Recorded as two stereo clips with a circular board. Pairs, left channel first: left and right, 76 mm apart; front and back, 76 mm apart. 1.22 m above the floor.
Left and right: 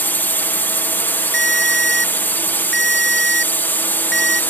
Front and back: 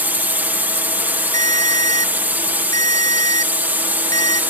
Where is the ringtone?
5° left.